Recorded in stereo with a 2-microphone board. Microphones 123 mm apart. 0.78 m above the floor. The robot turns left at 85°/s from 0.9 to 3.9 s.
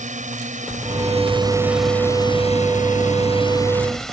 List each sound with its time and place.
0.0 s a drone: 70° right (ahead or behind); by 4.1 s centre (ahead or behind)